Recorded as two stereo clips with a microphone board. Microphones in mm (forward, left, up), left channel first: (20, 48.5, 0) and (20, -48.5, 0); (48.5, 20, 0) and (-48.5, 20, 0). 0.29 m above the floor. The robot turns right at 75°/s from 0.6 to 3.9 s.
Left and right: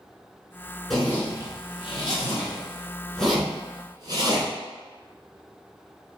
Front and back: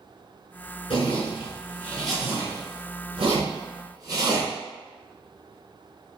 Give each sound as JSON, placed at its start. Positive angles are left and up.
{"t": 0.9, "sound": "a zipper", "azimuth_deg": 0, "distance_m": 1.1}